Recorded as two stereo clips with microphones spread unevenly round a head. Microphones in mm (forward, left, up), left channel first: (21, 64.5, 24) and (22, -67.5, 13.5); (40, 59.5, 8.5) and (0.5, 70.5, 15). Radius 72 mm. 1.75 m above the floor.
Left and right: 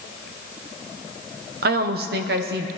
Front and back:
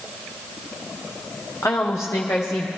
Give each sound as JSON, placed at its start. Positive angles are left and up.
{"t": 1.6, "sound": "a woman speaking", "azimuth_deg": -80, "distance_m": 0.8}